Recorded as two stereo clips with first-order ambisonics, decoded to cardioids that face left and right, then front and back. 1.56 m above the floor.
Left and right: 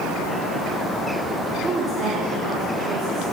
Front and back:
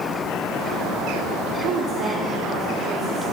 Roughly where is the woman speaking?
Behind right.